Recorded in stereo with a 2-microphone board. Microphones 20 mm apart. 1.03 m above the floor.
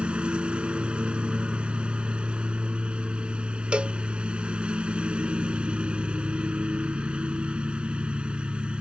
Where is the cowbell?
70° right (ahead or behind).